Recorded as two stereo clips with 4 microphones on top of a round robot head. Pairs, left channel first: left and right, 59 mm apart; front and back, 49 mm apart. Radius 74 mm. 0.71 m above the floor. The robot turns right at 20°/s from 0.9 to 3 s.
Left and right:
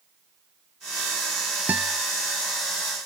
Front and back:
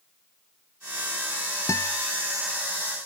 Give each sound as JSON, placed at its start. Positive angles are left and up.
{"t": 1.7, "sound": "a guitar", "azimuth_deg": -25}